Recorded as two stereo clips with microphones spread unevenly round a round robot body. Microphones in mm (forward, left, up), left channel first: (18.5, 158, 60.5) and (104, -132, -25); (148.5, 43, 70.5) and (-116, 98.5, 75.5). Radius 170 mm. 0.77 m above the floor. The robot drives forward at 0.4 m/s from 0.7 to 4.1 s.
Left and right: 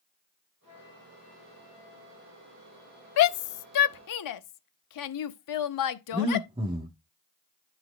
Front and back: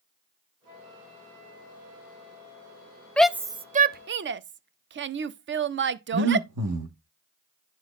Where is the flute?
170° left, 4 m.